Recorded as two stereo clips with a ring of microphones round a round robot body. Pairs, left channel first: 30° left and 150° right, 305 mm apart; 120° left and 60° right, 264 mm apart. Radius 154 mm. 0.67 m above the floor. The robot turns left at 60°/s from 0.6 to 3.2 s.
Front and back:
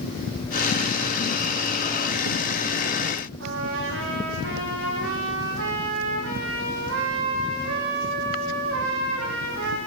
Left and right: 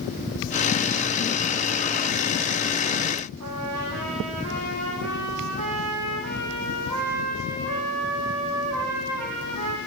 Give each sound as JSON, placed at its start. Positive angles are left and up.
{"t": 3.4, "sound": "a trumpet", "azimuth_deg": -105, "distance_m": 8.0}